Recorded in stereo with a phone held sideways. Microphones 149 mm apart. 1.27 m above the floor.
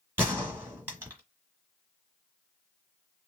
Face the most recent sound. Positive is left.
turn(degrees=-15)  # may be behind; listen again after turning